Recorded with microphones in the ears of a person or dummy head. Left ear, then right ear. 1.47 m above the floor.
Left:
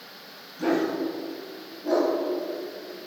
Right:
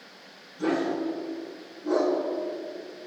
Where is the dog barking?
25° left (ahead or behind), 4.5 m.